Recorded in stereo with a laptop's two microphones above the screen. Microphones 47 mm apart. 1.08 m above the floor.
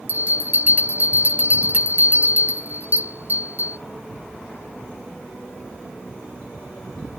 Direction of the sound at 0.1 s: 40° right (ahead or behind).